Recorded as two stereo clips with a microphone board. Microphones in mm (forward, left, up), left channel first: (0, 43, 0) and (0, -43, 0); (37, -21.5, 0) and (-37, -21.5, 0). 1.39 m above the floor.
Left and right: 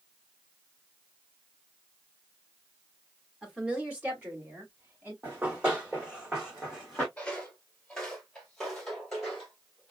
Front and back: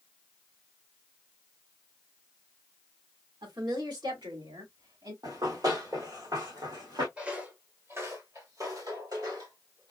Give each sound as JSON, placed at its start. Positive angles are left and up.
{"t": 3.4, "sound": "a woman speaking", "azimuth_deg": -170, "distance_m": 2.0}
{"t": 5.2, "sound": "running footsteps", "azimuth_deg": -160, "distance_m": 3.5}
{"t": 7.2, "sound": "footsteps", "azimuth_deg": 135, "distance_m": 1.4}